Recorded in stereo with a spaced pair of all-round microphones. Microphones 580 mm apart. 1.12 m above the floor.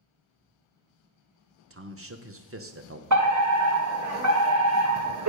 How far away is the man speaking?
About 0.8 m.